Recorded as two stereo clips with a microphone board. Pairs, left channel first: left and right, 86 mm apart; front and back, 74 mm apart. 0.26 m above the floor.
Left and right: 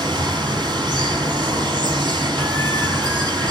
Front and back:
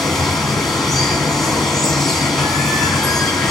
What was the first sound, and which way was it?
Running water, 90° right.